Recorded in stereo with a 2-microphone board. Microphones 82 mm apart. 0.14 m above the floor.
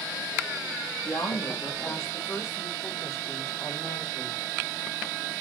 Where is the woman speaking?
40° left (ahead or behind), 3.5 m; by 4.4 s 35° left (ahead or behind), 6.5 m.